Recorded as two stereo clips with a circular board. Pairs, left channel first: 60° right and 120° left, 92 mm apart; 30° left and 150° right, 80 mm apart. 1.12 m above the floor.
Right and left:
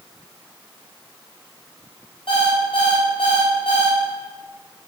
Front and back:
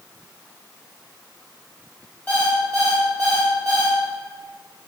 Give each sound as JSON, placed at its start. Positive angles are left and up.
{"t": 2.3, "sound": "an alarm clock", "azimuth_deg": -35, "distance_m": 2.0}